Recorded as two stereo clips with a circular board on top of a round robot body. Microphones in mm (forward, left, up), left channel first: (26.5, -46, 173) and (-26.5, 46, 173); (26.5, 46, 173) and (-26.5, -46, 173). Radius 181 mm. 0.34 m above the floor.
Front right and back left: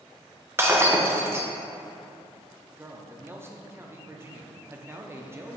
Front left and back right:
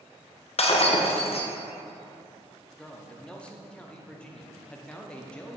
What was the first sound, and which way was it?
Breaking glass, 55° left.